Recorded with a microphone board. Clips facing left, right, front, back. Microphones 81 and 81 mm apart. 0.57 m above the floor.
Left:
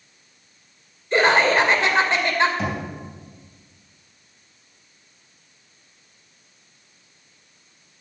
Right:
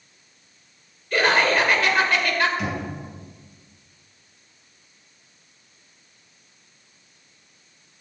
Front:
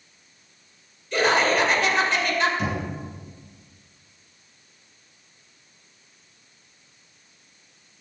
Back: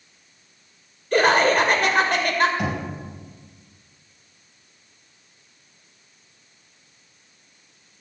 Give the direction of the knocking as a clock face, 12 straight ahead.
7 o'clock.